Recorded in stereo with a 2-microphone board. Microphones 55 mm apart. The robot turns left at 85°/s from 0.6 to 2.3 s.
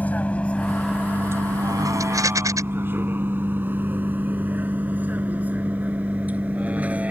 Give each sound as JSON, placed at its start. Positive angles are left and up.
{"t": 0.0, "sound": "a vehicle", "side_deg": 25}
{"t": 2.0, "sound": "a rattle", "side_deg": -80}